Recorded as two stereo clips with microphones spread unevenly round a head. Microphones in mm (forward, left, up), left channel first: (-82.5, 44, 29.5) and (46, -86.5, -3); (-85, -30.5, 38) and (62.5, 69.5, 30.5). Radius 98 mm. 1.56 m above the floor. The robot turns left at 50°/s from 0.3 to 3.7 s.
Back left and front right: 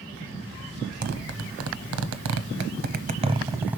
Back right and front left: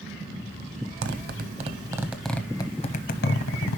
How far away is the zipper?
About 0.6 m.